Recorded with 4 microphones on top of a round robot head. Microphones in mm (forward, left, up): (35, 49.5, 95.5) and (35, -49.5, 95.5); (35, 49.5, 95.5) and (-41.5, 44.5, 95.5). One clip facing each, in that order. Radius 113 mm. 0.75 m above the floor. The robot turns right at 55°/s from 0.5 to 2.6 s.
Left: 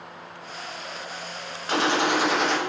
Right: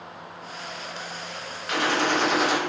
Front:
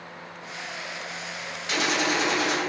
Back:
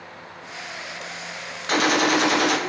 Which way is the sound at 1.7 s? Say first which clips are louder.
Left 1 dB, back 6 dB; 145° left.